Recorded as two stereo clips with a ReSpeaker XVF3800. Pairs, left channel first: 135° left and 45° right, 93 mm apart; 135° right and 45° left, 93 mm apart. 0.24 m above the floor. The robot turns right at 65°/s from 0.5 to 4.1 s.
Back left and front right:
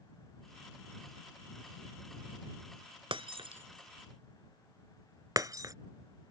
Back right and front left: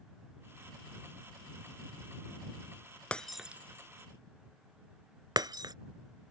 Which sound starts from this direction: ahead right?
Breaking glass, at 3.1 s.